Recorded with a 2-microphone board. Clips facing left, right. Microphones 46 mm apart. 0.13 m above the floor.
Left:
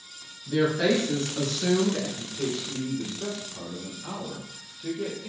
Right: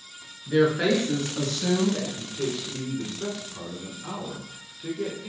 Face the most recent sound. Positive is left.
turn(degrees=-15)  # may be behind; listen again after turning